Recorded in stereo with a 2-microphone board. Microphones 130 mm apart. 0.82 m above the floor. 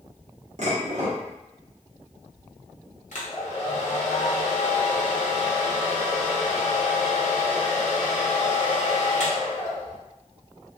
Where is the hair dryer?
70° left (ahead or behind), 0.6 m.